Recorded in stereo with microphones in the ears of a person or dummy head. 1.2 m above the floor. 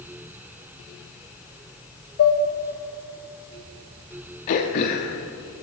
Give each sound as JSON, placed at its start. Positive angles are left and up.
{"t": 2.2, "sound": "dishes clattering", "side_deg": 55, "distance_m": 1.2}
{"t": 4.5, "sound": "throat clearing", "side_deg": 30, "distance_m": 0.7}